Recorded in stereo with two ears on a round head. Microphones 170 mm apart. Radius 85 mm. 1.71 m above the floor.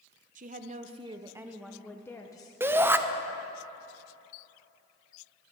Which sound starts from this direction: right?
A woman speaking, at 0.3 s.